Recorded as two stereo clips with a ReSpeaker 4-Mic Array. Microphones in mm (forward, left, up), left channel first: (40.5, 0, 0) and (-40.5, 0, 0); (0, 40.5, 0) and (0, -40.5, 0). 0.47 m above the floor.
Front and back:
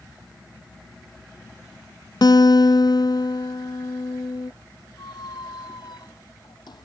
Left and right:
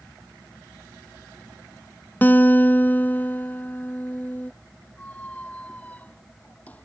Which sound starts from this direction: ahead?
A squeak, at 5.0 s.